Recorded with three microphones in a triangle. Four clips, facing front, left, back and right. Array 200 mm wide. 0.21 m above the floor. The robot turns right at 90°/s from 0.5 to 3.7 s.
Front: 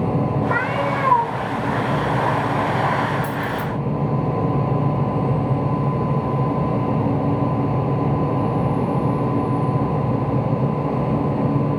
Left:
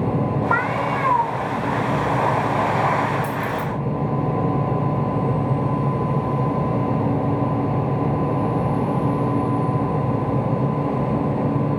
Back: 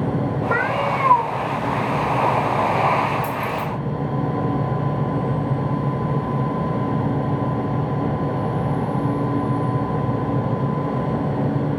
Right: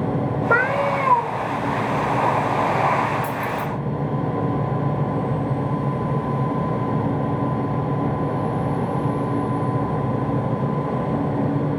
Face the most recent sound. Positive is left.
turn(degrees=-140)